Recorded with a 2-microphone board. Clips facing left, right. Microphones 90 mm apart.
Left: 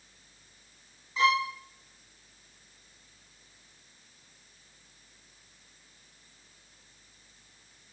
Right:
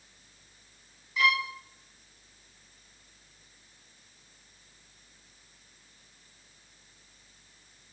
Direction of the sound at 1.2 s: 25° left (ahead or behind).